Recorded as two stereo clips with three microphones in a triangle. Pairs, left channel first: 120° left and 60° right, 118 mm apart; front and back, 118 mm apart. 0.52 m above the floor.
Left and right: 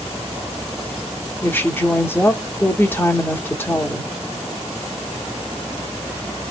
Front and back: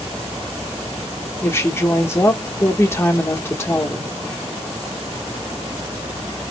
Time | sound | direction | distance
1.4 | a woman speaking | 55° left | 1.1 m